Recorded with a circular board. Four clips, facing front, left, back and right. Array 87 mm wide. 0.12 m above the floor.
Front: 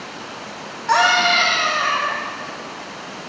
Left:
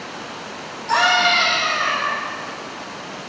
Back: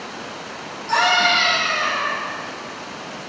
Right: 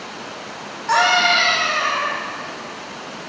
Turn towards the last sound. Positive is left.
turn(degrees=-25)